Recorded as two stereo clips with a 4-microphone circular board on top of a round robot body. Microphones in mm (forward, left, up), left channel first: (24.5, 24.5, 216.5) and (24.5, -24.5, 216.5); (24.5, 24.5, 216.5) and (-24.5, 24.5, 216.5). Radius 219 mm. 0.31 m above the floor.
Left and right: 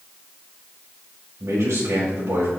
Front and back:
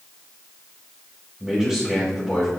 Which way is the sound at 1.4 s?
100° right.